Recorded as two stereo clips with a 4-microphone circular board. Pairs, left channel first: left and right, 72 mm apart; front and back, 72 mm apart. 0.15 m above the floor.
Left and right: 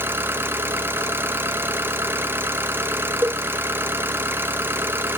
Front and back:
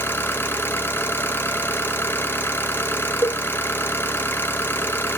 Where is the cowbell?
40° right, 0.7 m.